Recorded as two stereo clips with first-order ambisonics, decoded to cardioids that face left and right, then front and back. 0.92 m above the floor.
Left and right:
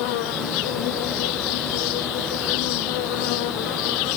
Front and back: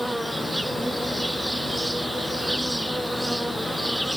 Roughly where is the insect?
Left.